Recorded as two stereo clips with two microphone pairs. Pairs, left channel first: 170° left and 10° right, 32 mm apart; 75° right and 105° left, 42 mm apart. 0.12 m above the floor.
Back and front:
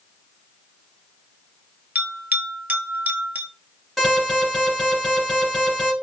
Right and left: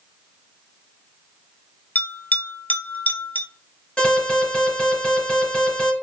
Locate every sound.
1.9 s a bell: 35° right, 0.7 m
4.0 s an alarm: 110° right, 2 m